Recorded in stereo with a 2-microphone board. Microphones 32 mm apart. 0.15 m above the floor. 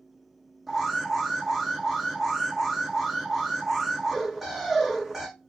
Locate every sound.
0.7 s an alarm: 10° right (ahead or behind), 6 m